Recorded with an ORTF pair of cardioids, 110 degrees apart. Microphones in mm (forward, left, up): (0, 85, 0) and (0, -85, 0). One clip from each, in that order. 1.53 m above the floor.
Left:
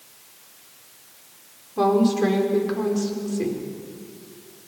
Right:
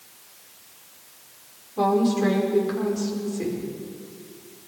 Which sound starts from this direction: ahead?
A woman speaking, at 1.8 s.